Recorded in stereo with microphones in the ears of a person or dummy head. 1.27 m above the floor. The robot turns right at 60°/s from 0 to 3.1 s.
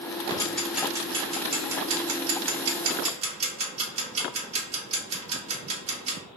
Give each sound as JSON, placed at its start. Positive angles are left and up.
{"t": 0.3, "sound": "ticking", "side_deg": 30, "distance_m": 1.0}